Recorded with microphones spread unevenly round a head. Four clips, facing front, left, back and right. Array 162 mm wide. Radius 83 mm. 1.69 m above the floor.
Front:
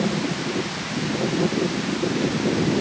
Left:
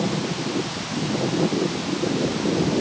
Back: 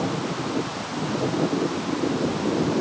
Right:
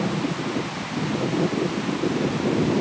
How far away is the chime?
No chime in this recording.